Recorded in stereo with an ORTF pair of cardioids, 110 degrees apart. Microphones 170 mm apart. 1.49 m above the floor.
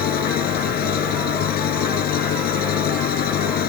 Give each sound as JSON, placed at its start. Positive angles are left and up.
{"t": 0.0, "sound": "an engine running", "azimuth_deg": 65}